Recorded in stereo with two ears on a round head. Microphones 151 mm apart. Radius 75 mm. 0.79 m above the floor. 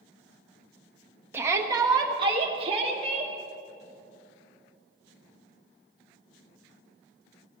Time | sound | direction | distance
1.3 | a shout | 15° right (ahead or behind) | 1.1 m